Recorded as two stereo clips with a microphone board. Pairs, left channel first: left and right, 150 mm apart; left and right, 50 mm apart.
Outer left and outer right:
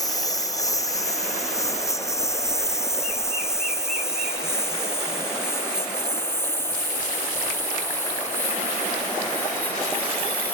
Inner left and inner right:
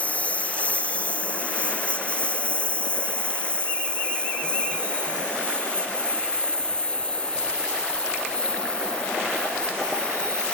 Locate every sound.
0.0 s a lawn mower: 25° left (ahead or behind); by 10.5 s 15° left (ahead or behind)